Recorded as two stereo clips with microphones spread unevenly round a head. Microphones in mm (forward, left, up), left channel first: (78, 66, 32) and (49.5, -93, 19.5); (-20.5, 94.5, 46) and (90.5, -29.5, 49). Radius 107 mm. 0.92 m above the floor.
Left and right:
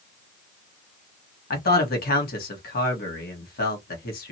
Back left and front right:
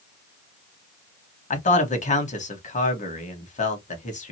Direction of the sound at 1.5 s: 100° left.